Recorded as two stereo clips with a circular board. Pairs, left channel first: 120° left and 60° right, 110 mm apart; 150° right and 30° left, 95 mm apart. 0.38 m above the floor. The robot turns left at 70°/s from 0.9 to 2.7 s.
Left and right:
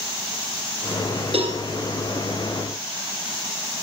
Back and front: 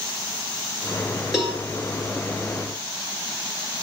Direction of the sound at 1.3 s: 55° right.